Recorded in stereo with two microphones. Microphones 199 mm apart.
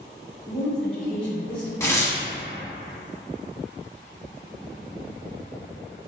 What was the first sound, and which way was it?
A woman speaking, 5° left (ahead or behind).